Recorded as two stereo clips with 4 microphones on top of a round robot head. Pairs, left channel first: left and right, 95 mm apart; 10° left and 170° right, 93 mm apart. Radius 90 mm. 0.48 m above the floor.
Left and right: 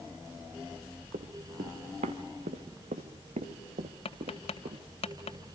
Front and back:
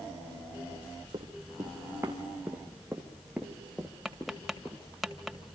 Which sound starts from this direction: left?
Tapping, at 4.0 s.